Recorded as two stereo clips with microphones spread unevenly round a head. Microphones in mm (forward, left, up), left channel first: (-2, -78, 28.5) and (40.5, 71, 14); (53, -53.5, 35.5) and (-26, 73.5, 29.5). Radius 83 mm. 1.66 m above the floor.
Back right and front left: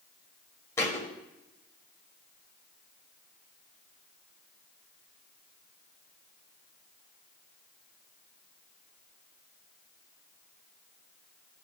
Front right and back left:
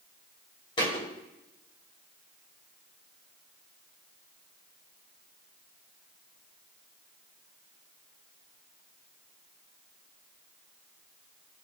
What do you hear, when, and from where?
0.8 s a thud: 60° right, 1.5 m